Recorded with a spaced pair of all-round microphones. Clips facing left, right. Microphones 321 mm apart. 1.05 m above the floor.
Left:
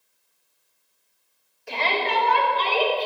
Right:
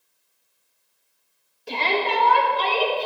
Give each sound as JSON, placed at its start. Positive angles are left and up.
{"t": 1.7, "sound": "a shout", "side_deg": -45, "distance_m": 1.6}